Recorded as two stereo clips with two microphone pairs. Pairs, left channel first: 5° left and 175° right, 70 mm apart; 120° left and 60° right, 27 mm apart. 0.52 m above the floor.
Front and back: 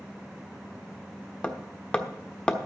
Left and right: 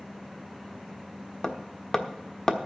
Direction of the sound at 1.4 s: 70° left.